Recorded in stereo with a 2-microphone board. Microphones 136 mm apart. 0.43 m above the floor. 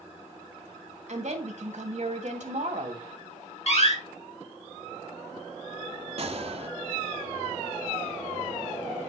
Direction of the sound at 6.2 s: 50° right (ahead or behind).